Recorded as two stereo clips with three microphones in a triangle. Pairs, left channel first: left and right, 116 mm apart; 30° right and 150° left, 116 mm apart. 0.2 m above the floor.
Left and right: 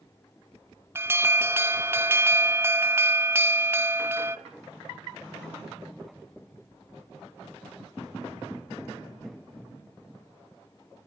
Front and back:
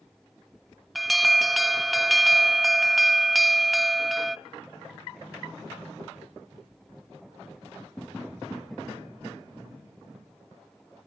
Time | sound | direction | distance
0.9 | an alarm | 120° right | 0.8 m